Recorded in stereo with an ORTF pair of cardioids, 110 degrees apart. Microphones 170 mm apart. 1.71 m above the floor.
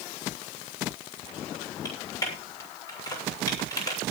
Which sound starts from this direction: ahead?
Typing on a keyboard, at 1.9 s.